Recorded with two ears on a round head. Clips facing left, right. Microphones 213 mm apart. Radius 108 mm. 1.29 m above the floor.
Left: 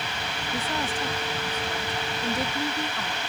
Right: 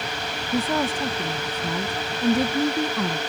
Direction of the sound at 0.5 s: 60° right (ahead or behind).